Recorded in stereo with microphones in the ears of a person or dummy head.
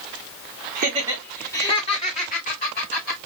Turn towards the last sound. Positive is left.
turn(degrees=45)  # may be behind; listen again after turning